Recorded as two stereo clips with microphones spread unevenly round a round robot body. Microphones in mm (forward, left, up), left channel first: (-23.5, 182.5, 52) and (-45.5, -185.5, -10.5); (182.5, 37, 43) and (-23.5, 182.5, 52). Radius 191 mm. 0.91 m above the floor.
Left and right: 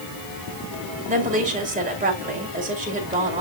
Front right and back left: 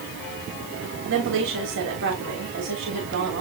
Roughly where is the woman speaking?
Behind.